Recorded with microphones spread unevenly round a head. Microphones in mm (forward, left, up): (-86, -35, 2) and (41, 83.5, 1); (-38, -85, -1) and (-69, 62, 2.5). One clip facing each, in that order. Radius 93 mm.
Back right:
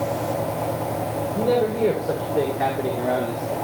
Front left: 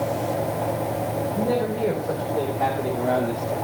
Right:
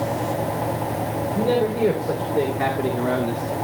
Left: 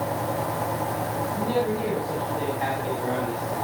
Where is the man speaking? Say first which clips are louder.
Back right 5 dB, right 6 dB; 80° right, 3.5 m; by 3.5 s 35° right, 1.8 m.